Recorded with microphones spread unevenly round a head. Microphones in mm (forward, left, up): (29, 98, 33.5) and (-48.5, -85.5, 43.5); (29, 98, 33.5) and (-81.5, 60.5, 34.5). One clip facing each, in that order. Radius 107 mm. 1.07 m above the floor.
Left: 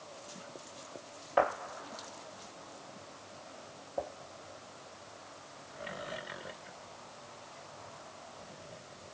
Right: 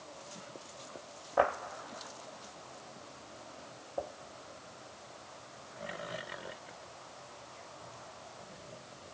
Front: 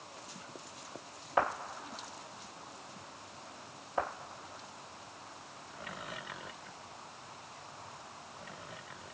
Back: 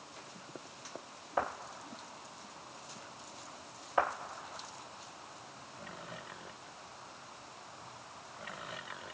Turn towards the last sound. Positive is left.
No sound to turn to.